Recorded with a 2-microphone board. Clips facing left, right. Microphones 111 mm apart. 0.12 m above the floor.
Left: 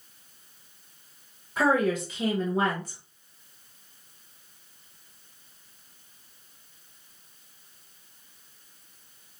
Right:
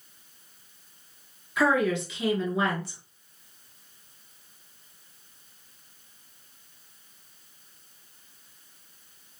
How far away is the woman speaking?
About 1.4 m.